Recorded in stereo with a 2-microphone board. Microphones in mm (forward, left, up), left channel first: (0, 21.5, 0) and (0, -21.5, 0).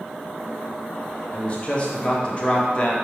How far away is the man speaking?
About 0.6 m.